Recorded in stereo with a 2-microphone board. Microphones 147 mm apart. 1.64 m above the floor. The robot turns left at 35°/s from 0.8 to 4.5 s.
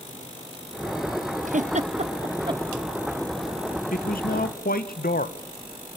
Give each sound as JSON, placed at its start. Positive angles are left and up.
{"t": 1.5, "sound": "a giggle", "side_deg": -60, "distance_m": 0.8}
{"t": 3.9, "sound": "a man speaking", "side_deg": 70, "distance_m": 1.5}